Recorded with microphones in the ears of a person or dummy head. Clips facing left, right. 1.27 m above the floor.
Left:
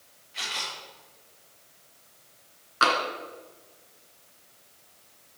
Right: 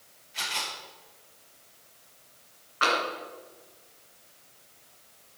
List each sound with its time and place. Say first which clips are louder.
0.3 s a camera shutter: right 1 dB; centre (ahead or behind), 4 m
2.8 s tapping: left 2 dB; 65° left (ahead or behind), 2.5 m